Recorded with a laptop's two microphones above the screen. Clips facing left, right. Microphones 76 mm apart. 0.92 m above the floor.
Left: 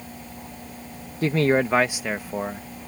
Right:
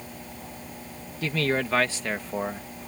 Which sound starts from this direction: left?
A man speaking, at 1.2 s.